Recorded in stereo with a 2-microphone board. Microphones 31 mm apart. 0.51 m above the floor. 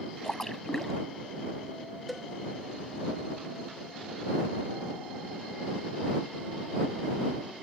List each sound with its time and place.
0.2 s a splash: 15° left (ahead or behind)
2.1 s a cowbell: centre (ahead or behind)